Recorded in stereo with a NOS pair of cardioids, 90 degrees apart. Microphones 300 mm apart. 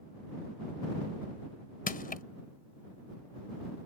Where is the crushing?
30° left.